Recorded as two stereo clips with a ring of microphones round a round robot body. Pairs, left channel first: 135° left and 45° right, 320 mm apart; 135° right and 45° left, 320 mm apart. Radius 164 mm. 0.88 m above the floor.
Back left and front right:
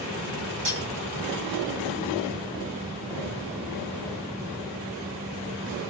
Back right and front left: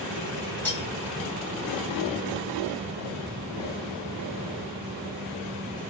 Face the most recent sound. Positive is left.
turn(degrees=-50)